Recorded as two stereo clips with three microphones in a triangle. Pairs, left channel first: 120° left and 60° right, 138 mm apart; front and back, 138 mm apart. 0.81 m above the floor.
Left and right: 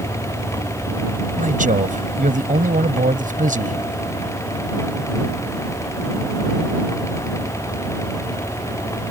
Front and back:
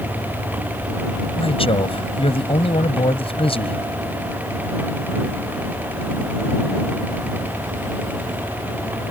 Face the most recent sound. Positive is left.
turn(degrees=-45)